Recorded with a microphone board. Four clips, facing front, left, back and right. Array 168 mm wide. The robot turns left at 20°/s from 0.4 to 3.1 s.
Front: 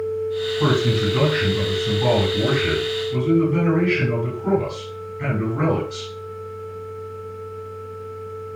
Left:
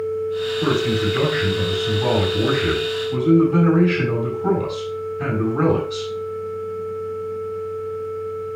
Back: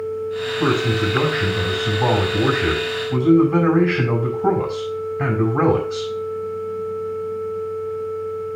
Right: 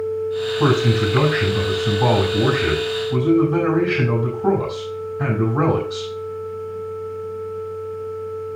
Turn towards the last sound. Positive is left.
turn(degrees=-150)